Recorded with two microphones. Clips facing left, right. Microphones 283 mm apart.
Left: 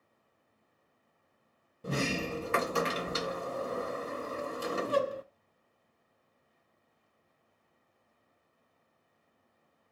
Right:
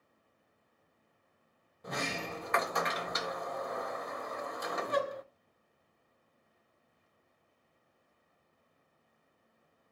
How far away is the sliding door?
About 0.6 m.